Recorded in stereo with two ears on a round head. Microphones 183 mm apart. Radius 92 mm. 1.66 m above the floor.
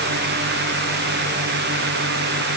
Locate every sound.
Only background noise.